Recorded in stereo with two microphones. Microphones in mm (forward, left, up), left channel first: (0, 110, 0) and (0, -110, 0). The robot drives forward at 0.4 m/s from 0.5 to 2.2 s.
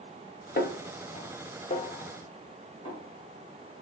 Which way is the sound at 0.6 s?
45° left (ahead or behind).